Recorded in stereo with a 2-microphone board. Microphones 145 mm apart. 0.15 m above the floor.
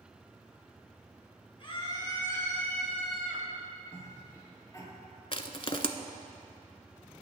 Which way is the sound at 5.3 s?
40° left (ahead or behind).